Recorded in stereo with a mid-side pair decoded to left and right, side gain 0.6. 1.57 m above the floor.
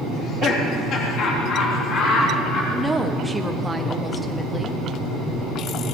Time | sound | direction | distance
0.1 | laughter | 55° left | 3 m
2.7 | a woman speaking | 5° right | 1.3 m